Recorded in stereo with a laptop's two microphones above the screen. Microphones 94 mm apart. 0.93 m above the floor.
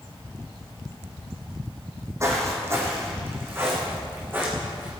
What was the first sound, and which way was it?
Footsteps, 30° right (ahead or behind).